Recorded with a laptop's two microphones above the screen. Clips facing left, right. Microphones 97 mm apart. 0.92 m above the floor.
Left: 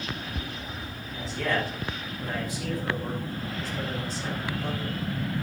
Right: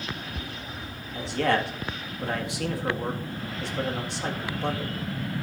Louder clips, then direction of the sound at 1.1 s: Right 4 dB; 65° right (ahead or behind).